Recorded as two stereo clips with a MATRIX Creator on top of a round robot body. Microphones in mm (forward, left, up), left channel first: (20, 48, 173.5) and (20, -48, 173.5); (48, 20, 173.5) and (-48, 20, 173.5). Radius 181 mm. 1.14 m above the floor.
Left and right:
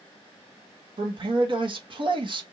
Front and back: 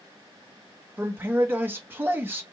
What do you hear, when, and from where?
1.0 s a man speaking: 115° right, 1.2 m